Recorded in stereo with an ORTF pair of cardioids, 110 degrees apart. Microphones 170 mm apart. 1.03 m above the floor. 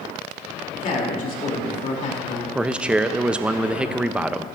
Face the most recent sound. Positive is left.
turn(degrees=-5)